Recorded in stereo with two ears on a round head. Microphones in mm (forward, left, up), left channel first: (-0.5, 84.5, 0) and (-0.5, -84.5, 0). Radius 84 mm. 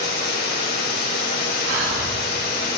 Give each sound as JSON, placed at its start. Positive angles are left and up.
{"t": 0.0, "sound": "running water", "side_deg": 55, "distance_m": 3.0}
{"t": 1.6, "sound": "breathing", "side_deg": -70, "distance_m": 7.0}